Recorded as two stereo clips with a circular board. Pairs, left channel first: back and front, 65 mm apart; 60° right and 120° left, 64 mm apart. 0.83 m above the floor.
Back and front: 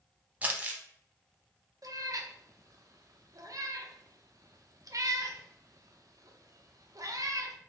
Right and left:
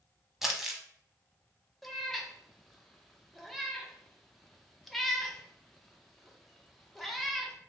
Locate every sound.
0.4 s crumpling: 35° left, 0.7 m
1.8 s a cat meowing: 25° left, 0.6 m